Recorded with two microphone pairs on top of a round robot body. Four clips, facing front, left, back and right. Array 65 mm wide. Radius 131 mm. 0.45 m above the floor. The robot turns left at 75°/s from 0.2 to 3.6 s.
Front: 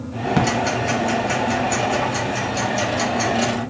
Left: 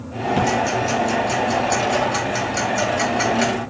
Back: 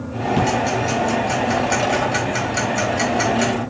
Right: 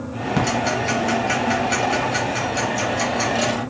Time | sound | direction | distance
0.4 | ticking | 20° right | 2.0 m